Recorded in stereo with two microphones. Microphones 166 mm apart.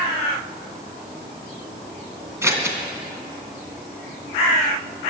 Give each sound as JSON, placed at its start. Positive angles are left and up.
{"t": 2.4, "sound": "scissors", "side_deg": -15, "distance_m": 2.0}